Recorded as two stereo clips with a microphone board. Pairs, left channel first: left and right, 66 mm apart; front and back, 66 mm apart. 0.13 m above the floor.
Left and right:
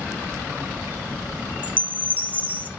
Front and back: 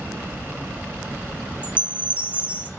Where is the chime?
130° left, 0.9 m.